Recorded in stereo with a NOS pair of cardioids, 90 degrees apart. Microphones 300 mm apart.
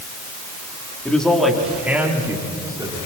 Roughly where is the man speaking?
Ahead.